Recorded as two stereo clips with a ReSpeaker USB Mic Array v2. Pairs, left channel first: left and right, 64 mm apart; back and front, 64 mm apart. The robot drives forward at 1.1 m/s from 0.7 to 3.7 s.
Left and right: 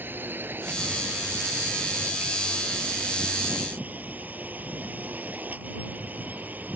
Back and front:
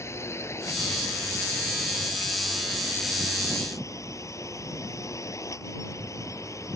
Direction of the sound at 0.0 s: 145° right.